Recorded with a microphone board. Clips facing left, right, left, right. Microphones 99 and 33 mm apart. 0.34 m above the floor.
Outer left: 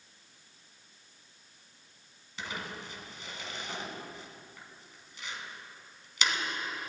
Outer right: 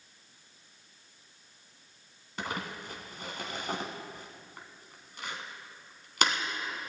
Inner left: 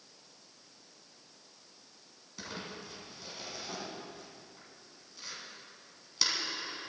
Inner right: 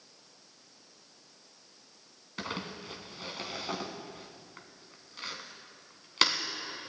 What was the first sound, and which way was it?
Crumpling, 55° right (ahead or behind).